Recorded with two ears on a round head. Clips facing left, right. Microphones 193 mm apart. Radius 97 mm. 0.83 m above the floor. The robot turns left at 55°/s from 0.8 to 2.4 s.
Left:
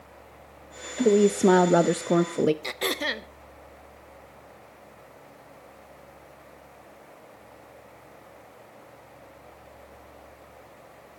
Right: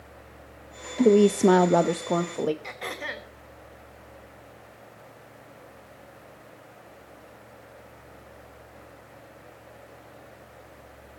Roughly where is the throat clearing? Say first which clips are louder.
Left 6 dB; left.